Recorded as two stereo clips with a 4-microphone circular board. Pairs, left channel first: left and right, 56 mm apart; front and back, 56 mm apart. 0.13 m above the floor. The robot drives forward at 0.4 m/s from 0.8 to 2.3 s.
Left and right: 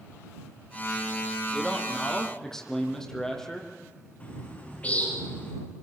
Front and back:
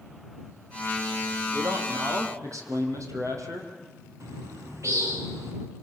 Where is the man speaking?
170° left, 4.5 m.